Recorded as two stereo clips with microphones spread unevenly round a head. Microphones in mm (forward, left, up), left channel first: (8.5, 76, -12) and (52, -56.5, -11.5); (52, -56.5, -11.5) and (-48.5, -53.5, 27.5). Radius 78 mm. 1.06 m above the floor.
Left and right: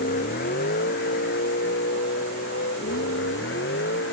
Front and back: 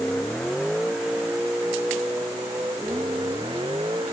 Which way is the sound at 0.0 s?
85° left.